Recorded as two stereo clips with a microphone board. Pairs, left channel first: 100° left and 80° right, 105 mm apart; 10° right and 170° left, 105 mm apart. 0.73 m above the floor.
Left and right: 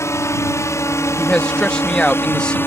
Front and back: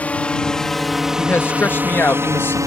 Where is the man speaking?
30° left.